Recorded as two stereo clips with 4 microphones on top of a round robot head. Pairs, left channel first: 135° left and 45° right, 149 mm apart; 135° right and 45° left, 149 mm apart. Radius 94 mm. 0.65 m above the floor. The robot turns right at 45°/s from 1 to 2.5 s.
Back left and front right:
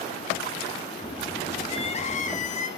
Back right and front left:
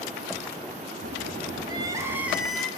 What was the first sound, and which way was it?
Crying, 95° left.